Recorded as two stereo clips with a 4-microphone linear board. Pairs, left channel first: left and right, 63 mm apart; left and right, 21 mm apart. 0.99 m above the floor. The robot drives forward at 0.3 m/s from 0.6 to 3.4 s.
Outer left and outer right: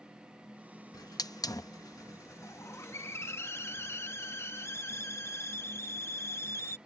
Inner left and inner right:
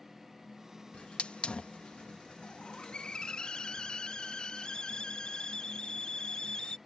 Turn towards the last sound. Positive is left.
turn(degrees=45)  # may be behind; listen again after turning